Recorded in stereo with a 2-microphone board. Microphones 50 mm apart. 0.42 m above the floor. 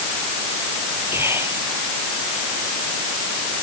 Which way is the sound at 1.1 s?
50° right (ahead or behind).